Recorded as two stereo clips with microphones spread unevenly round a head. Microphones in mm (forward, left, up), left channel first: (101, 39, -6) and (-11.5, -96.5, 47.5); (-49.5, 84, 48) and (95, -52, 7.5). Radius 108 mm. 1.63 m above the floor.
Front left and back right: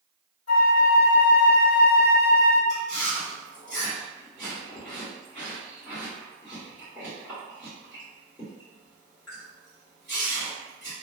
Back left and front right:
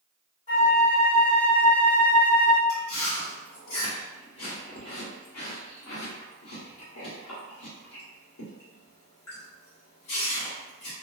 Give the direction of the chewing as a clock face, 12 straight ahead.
7 o'clock.